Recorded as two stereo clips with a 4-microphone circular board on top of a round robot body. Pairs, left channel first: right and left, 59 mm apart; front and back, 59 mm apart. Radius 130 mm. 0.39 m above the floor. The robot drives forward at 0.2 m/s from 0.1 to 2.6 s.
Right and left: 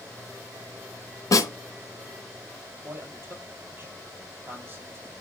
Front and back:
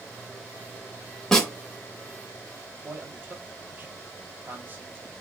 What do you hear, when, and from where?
1.3 s a snare drum: 80° right, 2.5 m; by 1.5 s 85° right, 2.5 m
2.8 s a man speaking: 130° left, 4 m